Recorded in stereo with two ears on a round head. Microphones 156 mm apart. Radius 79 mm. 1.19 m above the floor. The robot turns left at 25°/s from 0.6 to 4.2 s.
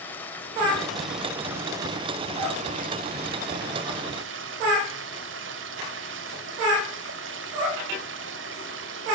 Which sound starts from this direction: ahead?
Running water, at 0.0 s.